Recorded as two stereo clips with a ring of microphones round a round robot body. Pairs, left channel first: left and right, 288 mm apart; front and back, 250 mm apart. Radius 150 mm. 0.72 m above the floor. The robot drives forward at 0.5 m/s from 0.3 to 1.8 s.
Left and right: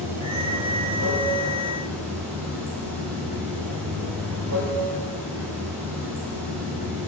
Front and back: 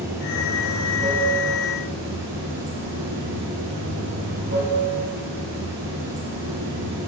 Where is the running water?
100° right, 1.4 m; by 7.1 s 125° right, 1.7 m.